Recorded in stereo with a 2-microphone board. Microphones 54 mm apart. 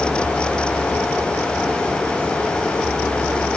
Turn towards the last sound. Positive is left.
No sound to turn to.